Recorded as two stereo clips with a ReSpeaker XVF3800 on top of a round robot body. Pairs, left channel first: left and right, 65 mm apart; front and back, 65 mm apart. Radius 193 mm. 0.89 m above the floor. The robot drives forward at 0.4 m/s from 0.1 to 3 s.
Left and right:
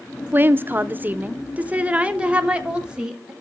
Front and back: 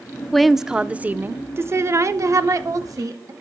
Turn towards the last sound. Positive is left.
turn(degrees=-165)